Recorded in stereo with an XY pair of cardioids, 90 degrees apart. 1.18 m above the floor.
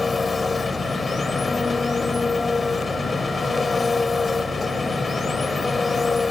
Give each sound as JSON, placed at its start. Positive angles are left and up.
{"t": 0.0, "sound": "an engine running", "azimuth_deg": 30}